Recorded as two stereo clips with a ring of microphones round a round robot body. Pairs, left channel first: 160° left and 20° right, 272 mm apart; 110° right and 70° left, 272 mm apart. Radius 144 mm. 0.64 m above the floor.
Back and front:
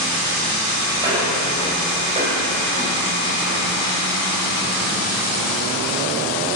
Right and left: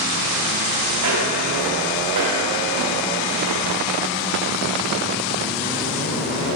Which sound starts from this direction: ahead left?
Footsteps, at 1.0 s.